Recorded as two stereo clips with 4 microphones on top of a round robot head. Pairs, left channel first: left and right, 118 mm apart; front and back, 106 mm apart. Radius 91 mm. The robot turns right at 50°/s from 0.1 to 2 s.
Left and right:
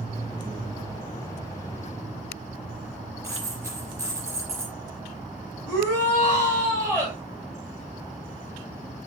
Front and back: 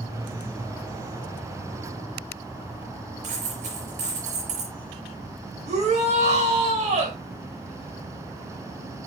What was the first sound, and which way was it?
A dropped coin, 160° right.